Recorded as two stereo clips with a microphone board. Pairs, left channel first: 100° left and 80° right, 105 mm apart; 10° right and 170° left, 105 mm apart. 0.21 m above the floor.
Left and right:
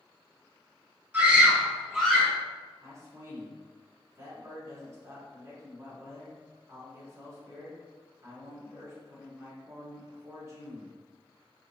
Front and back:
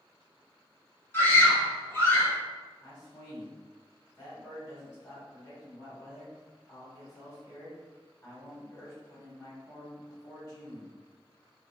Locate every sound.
1.1 s a scream: 30° right, 1.2 m; by 2.3 s 25° left, 1.4 m
2.8 s a man speaking: 40° right, 1.6 m